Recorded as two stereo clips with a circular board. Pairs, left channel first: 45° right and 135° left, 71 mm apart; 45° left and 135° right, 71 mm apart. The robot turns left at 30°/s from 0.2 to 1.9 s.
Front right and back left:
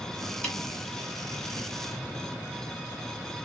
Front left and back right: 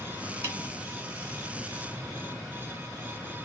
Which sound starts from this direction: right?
A snare drum, at 0.4 s.